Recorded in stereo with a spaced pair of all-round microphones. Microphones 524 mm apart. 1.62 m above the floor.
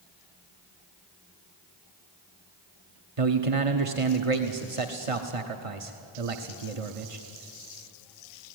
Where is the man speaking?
80° right, 1.1 m.